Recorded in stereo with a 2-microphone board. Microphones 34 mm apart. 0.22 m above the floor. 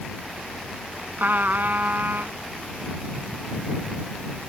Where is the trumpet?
65° right (ahead or behind).